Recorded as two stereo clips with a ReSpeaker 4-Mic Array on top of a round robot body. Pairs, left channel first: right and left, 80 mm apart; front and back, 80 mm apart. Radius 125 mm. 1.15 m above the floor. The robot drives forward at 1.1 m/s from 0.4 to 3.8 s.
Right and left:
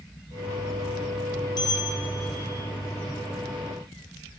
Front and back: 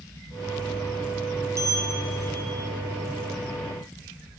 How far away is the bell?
About 4 m.